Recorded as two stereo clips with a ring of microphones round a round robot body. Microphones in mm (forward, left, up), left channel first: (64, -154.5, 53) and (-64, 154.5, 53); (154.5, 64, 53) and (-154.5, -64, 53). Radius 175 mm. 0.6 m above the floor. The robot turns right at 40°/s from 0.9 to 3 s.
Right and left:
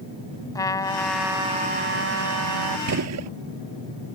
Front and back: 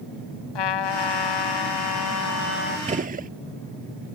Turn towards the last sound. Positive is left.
turn(degrees=140)